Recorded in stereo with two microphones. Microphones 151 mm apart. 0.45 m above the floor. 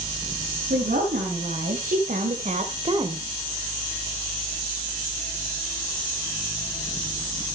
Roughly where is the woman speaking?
Right.